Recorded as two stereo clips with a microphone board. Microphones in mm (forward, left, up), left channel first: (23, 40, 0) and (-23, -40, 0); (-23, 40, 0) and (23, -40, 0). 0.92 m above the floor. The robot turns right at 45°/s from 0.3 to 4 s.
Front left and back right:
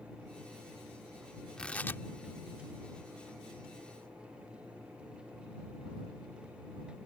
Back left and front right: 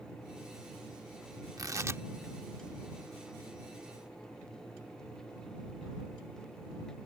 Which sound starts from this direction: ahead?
Tearing paper, at 1.6 s.